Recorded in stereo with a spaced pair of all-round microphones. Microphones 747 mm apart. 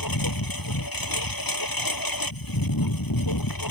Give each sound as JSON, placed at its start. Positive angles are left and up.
{"t": 0.0, "sound": "a lawn mower", "side_deg": 25}